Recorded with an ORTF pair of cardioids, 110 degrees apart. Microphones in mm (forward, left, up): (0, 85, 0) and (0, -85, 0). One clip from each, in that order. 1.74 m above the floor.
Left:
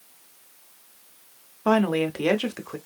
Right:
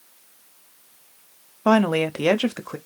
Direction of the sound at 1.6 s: 20° right.